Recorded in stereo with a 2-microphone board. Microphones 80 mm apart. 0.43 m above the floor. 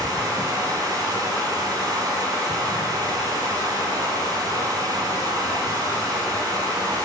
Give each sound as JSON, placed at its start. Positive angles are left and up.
{"t": 0.0, "sound": "running water", "side_deg": -55, "distance_m": 3.5}